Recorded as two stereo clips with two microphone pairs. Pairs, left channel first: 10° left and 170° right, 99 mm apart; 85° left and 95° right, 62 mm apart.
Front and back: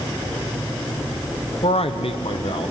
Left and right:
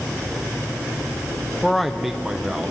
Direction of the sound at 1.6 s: Straight ahead.